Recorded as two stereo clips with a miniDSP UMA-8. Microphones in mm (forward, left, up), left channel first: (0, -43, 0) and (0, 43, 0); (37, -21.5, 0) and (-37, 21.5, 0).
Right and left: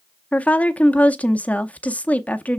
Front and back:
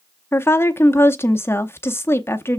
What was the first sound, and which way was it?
A woman speaking, 35° right.